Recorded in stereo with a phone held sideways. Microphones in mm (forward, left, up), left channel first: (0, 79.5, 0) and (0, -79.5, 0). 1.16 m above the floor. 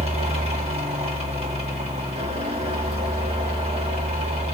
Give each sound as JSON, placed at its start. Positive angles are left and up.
{"t": 0.0, "sound": "a fan", "side_deg": -40, "distance_m": 1.8}